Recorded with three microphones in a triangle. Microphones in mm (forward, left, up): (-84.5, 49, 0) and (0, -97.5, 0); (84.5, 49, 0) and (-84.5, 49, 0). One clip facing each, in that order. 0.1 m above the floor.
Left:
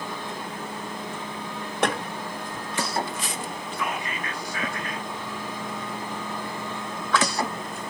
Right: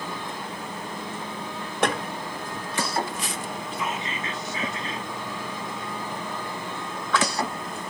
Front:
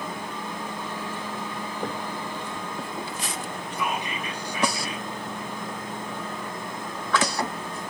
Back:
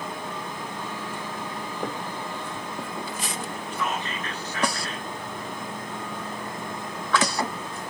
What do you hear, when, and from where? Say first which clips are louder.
3.7 s whispering: left 1 dB, front 1 dB; 55° right, 1.3 m